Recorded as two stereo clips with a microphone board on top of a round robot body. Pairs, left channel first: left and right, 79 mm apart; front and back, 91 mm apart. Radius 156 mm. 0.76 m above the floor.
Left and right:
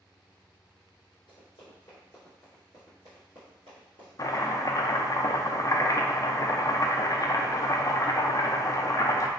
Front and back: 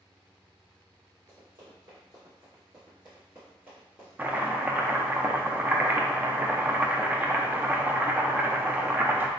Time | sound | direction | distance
1.3 | running footsteps | 120° left | 1.1 m
4.2 | chopping | 115° left | 0.6 m